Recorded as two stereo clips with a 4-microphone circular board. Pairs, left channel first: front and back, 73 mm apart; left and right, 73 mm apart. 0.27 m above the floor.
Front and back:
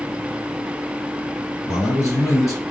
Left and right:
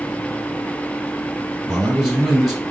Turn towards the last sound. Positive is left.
turn(degrees=0)